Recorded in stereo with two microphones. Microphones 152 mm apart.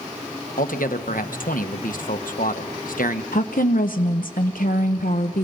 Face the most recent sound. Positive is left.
turn(degrees=75)  # may be behind; listen again after turning